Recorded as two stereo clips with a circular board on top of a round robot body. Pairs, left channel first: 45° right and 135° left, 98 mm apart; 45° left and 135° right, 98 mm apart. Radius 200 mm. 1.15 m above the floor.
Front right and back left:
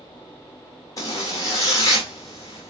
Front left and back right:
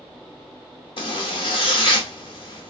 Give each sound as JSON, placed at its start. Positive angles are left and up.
{"t": 1.0, "sound": "a zipper", "azimuth_deg": 10, "distance_m": 0.8}